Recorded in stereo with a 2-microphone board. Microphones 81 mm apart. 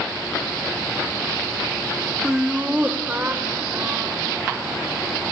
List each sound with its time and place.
2.2 s laughter: 10° right (ahead or behind), 1.0 m; by 4.8 s 30° right (ahead or behind), 2.5 m